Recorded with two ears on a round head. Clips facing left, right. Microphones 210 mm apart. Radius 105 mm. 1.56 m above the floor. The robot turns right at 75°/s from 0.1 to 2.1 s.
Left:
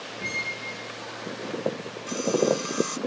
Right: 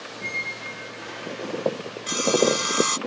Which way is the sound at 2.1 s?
85° right.